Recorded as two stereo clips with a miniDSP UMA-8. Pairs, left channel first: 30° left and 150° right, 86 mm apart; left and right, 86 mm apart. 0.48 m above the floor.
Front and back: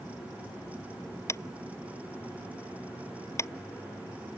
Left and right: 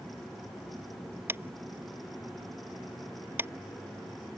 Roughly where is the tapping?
Ahead right.